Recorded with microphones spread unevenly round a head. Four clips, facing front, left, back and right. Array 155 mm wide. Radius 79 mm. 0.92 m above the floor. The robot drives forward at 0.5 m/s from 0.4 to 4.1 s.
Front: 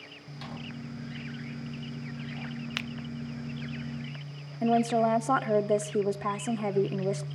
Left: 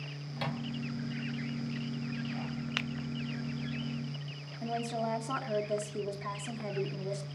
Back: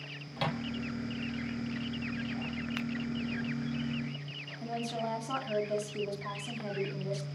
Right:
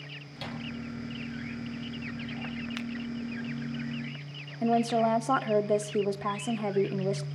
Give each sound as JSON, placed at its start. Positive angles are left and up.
{"t": 0.4, "sound": "a microwave", "azimuth_deg": 165, "distance_m": 3.5}
{"t": 2.8, "sound": "a finger snap", "azimuth_deg": 70, "distance_m": 0.7}
{"t": 4.6, "sound": "a woman speaking", "azimuth_deg": -45, "distance_m": 1.9}